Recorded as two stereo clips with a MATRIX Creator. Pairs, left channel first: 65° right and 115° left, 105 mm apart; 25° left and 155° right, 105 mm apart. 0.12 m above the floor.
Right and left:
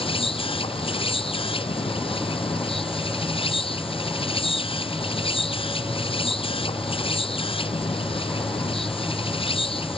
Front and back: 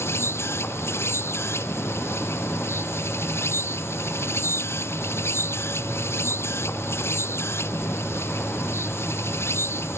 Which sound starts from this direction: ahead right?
An insect, at 0.0 s.